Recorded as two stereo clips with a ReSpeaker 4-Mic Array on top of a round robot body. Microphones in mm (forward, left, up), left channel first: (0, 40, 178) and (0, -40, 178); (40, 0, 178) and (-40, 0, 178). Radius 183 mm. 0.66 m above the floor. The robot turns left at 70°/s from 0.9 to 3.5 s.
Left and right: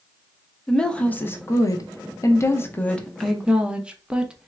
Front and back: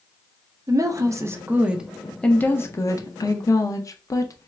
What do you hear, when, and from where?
0.7 s a woman speaking: 165° left, 1.0 m; by 4.5 s 15° right, 1.0 m